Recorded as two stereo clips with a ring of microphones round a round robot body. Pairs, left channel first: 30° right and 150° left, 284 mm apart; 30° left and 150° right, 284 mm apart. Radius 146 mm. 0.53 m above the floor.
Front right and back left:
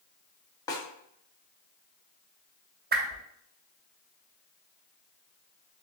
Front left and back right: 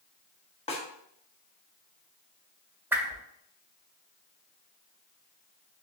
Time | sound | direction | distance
0.7 | a snare drum | 20° left | 1.2 m
2.9 | a whoosh | 130° left | 0.8 m